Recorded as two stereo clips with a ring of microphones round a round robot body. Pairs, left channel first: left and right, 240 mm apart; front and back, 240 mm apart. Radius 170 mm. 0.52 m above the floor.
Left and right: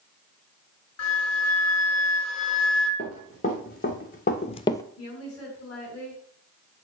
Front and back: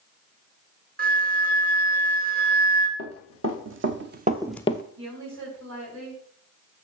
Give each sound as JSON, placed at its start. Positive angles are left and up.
{"t": 1.0, "sound": "a flute", "azimuth_deg": 130, "distance_m": 2.0}
{"t": 3.0, "sound": "running footsteps", "azimuth_deg": 160, "distance_m": 2.0}
{"t": 5.0, "sound": "a woman speaking", "azimuth_deg": 155, "distance_m": 5.0}